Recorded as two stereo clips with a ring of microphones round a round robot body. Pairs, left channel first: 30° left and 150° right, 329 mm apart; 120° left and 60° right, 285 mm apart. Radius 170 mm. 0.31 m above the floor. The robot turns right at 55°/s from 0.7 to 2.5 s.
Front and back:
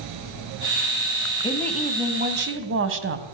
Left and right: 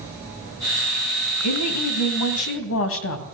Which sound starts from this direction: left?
A woman speaking, at 1.4 s.